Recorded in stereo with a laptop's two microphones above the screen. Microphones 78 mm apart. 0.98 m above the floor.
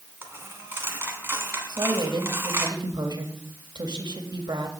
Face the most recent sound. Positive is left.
turn(degrees=-70)  # may be behind; listen again after turning